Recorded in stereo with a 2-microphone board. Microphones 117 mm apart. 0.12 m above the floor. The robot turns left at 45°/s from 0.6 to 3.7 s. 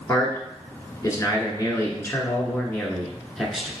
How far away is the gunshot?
I don't hear a gunshot.